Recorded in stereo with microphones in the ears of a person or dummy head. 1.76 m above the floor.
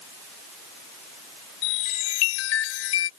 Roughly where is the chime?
Left.